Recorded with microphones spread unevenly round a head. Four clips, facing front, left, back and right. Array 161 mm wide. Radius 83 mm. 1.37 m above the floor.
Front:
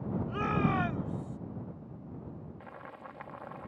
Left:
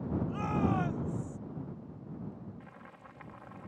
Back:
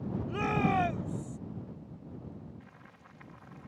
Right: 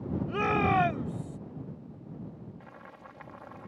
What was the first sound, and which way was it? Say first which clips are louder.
A shout: right 7 dB, back 2 dB; 105° right.